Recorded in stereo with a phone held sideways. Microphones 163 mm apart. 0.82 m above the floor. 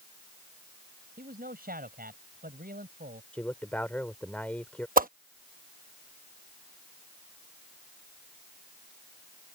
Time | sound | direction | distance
1.2 | a man speaking | 70° right (ahead or behind) | ?
3.3 | a man speaking | 10° left (ahead or behind) | ?
5.0 | a whoosh | 60° right (ahead or behind) | ?